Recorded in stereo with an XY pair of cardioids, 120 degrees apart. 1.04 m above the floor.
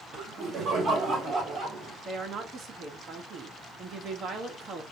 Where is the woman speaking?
45° right, 1.3 m.